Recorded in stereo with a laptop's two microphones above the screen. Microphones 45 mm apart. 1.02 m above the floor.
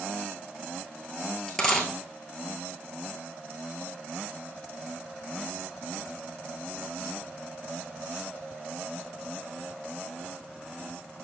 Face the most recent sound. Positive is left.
turn(degrees=10)  # may be behind; listen again after turning